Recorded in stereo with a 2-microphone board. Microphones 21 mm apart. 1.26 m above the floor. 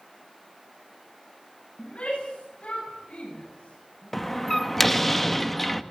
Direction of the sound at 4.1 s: 15° left (ahead or behind).